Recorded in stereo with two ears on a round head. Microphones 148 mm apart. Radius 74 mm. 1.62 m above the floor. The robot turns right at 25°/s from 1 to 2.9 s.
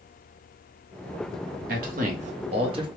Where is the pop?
No pop in this recording.